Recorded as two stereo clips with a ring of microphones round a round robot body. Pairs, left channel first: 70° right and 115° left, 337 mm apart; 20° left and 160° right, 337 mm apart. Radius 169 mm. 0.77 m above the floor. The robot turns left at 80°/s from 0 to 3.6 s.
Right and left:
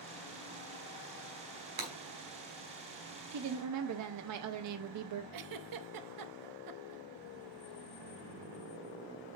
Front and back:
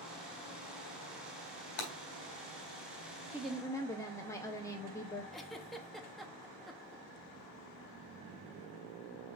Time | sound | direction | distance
1.8 | breaking glass | 50° left | 3 m
3.3 | a woman speaking | 125° left | 0.6 m
5.3 | a giggle | 110° left | 0.8 m